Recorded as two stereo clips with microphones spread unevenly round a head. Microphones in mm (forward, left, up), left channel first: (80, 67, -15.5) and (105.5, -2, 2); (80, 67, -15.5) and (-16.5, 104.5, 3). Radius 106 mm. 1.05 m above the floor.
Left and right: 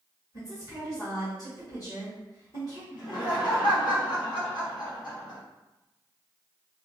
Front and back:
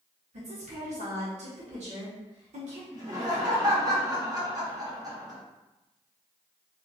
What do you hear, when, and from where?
0.3 s a woman speaking: 160° left, 1.3 m
2.9 s laughter: 105° left, 1.9 m